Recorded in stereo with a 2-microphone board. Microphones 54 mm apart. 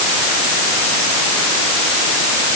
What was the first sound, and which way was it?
Only background noise.